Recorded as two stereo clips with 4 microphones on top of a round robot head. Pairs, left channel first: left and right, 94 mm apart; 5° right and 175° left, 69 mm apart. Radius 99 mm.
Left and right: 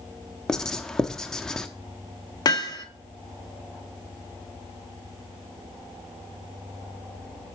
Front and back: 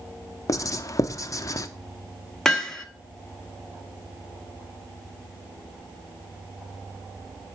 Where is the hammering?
80° left, 1.0 m.